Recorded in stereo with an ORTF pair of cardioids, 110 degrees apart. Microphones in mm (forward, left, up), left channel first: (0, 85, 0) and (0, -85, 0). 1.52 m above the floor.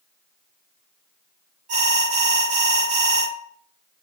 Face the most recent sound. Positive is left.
turn(degrees=-50)